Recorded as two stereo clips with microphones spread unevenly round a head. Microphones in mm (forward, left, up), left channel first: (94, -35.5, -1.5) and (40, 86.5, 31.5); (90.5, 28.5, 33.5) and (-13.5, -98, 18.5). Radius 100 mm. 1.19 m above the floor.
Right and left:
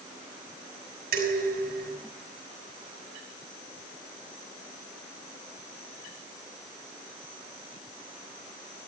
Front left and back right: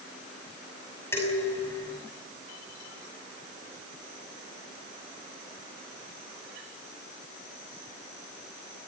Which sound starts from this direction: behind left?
Dishes clattering, at 1.1 s.